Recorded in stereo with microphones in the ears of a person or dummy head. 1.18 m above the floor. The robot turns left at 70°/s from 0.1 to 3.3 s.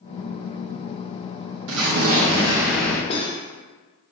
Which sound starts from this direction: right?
An explosion, at 1.7 s.